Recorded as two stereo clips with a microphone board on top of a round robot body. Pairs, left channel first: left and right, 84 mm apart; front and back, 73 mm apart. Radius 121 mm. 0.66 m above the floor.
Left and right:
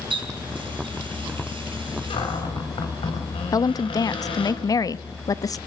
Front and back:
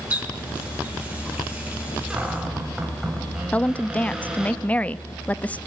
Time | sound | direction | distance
0.1 | a running tap | 110° right | 6 m
2.1 | a cupboard door | 100° left | 5 m
3.5 | a woman speaking | 65° left | 0.9 m